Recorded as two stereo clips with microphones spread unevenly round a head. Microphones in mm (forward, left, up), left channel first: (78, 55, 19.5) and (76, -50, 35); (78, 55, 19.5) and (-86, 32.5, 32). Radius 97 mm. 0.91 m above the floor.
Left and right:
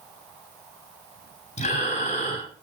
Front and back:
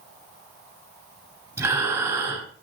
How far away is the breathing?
About 9 m.